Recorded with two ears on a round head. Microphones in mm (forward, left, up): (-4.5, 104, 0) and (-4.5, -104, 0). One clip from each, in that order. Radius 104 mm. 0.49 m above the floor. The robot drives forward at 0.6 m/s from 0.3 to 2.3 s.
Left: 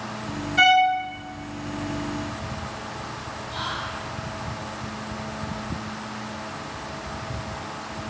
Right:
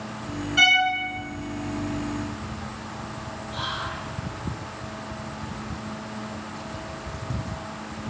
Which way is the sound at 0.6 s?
45° right (ahead or behind).